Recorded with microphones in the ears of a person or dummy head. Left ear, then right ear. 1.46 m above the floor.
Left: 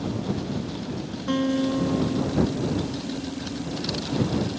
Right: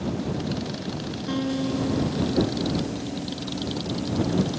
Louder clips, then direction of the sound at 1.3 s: Left 4 dB; 15° left (ahead or behind).